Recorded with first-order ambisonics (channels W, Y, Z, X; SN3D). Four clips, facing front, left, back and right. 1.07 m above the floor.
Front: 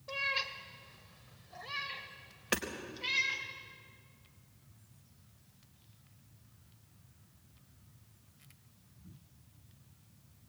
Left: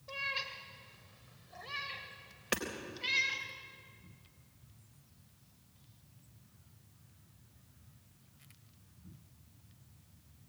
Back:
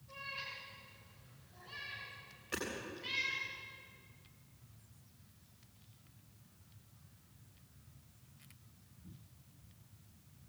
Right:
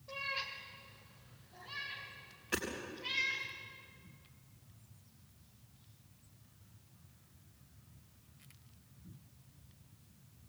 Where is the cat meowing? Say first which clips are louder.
Left 2 dB, front 10 dB; 15° left, 2.5 m; by 3.5 s 60° left, 3.5 m.